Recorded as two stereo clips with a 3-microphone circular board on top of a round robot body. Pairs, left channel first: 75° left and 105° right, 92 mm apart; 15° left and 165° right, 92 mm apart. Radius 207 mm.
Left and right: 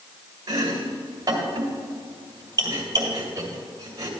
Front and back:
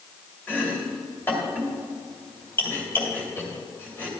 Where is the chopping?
55° right, 2.5 m.